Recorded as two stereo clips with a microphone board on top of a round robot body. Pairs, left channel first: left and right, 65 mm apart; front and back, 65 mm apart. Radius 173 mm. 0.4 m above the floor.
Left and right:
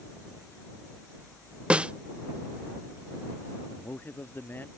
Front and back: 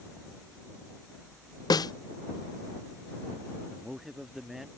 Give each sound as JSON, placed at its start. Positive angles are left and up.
{"t": 1.7, "sound": "a snare drum", "azimuth_deg": -15}
{"t": 3.7, "sound": "a man speaking", "azimuth_deg": 100}